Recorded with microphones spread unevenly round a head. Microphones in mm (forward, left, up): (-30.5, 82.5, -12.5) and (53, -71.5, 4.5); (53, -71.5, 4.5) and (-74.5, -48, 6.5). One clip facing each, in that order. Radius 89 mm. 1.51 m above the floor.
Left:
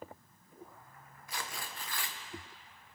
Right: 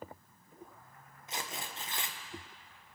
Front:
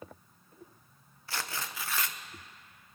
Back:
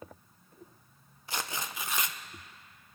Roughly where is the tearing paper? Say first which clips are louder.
Right 1 dB, back 1 dB; behind right.